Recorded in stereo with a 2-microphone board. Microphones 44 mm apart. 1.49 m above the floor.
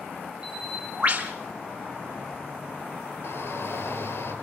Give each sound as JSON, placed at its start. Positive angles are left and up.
{"t": 0.4, "sound": "a bird", "side_deg": -25, "distance_m": 3.0}
{"t": 3.2, "sound": "a shout", "side_deg": 70, "distance_m": 7.0}